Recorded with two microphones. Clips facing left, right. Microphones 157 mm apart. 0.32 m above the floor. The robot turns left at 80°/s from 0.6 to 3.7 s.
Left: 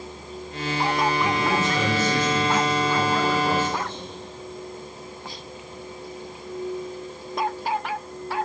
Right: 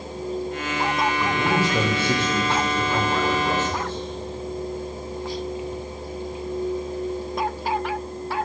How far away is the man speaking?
About 8.5 m.